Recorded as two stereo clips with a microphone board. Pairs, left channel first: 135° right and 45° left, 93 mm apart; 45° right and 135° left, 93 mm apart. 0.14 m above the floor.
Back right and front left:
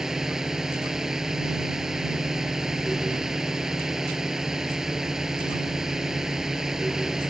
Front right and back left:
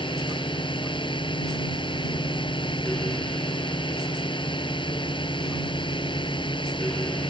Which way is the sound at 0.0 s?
40° right.